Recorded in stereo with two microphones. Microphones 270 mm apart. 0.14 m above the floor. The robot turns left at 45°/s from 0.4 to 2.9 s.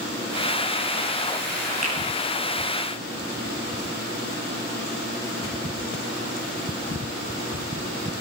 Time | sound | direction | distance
1.8 | a finger snap | 65° right (ahead or behind) | 7.5 m